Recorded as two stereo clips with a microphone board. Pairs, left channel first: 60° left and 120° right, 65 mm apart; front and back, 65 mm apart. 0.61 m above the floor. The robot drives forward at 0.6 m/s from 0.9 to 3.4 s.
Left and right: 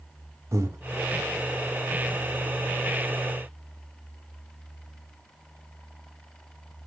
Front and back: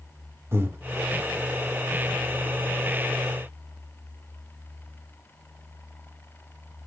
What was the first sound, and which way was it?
Breathing, 145° right.